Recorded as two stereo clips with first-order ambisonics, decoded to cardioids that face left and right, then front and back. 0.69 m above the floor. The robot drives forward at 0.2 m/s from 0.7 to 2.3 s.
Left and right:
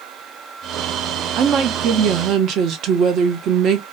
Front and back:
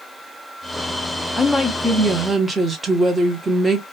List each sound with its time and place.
1.4 s a woman speaking: 75° right, 0.6 m; by 3.8 s 105° right, 0.6 m